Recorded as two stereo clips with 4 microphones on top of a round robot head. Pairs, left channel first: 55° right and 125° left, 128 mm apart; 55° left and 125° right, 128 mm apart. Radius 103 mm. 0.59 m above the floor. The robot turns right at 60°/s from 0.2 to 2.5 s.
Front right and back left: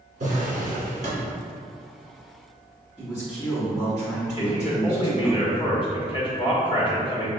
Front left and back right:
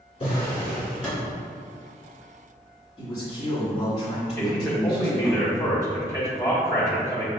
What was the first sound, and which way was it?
A drawer, 105° left.